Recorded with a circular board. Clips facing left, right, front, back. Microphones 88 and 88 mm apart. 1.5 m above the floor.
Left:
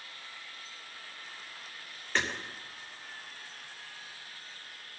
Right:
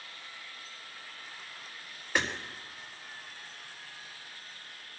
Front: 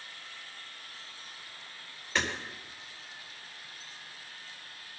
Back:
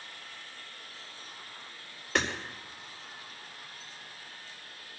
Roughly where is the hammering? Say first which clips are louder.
Right 1 dB, back 2 dB; behind.